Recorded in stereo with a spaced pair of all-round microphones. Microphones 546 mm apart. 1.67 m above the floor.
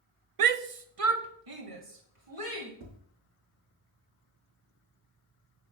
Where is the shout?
75° right (ahead or behind), 0.5 m; by 2.7 s 70° right (ahead or behind), 2 m.